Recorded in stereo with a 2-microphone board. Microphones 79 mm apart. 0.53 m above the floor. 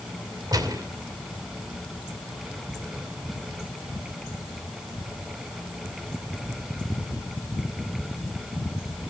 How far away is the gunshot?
About 2.5 m.